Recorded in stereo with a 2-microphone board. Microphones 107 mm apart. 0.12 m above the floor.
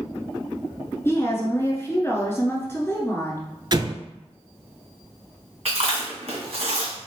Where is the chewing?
65° right (ahead or behind), 2.0 m.